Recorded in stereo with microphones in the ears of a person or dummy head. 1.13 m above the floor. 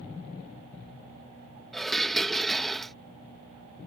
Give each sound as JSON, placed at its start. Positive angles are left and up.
{"t": 1.7, "sound": "dishes clattering", "side_deg": 0}